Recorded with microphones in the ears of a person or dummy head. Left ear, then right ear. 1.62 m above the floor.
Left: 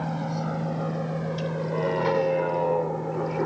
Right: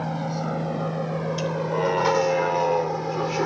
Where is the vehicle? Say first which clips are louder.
Right 2 dB; 10° right (ahead or behind); by 3.5 s 80° right.